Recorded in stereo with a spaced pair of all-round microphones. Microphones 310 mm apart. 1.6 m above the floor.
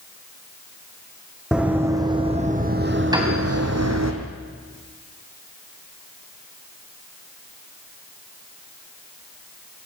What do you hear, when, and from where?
1.5 s running footsteps: 5° right (ahead or behind), 3 m; by 4.1 s 60° right (ahead or behind), 3 m
3.1 s a piano: 15° right (ahead or behind), 4 m